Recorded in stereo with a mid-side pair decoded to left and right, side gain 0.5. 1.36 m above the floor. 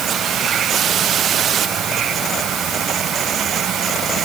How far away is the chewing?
I don't hear chewing.